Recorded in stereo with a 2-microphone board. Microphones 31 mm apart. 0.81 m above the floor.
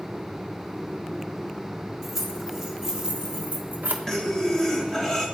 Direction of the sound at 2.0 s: 5° right (ahead or behind).